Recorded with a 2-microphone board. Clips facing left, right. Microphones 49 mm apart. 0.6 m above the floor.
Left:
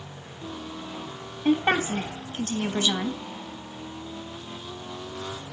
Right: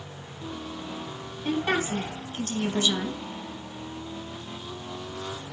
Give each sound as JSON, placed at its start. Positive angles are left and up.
{"t": 1.4, "sound": "a woman speaking", "side_deg": 30, "distance_m": 3.0}